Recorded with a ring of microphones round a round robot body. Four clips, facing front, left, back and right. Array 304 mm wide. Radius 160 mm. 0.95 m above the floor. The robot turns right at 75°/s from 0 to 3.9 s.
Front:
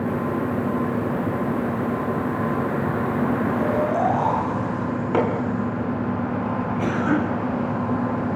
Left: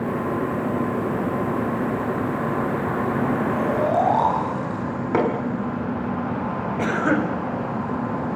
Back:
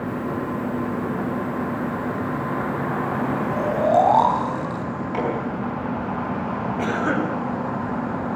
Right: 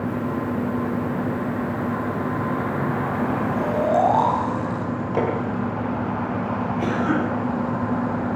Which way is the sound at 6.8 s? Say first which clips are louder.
Left 2 dB, front 1 dB; 110° left.